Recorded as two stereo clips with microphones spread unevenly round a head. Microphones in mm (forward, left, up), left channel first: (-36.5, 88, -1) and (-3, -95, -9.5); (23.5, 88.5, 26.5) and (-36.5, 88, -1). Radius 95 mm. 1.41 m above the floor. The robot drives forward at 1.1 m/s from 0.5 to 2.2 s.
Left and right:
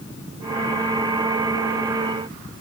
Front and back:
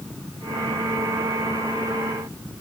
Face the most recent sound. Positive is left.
No sound to turn to.